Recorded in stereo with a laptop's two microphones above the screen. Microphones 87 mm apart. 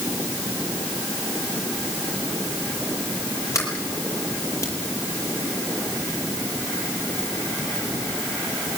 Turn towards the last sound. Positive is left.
turn(degrees=35)  # may be behind; listen again after turning